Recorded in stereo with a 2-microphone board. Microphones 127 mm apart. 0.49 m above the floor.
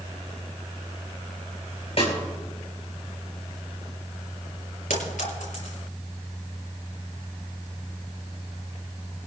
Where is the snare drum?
50° left (ahead or behind), 4 m.